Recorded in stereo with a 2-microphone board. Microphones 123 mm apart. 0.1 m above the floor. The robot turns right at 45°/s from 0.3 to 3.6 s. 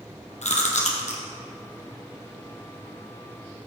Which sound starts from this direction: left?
Chewing, at 0.4 s.